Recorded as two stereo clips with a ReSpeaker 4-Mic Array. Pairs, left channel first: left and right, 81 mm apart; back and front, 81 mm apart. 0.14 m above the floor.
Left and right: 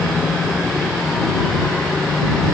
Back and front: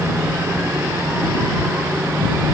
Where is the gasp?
I don't hear a gasp.